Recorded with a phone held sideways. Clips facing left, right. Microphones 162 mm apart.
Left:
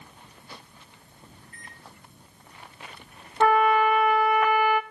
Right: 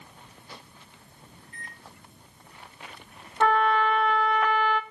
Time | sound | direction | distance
1.4 | a microwave | 30° right (ahead or behind) | 9 m
3.4 | a trumpet | 5° left (ahead or behind) | 0.5 m